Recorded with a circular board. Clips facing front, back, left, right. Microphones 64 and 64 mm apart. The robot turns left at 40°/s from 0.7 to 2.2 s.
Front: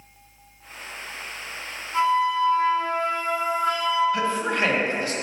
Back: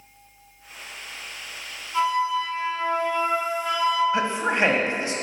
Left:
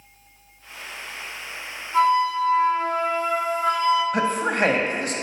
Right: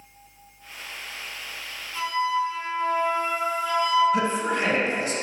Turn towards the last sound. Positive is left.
turn(degrees=115)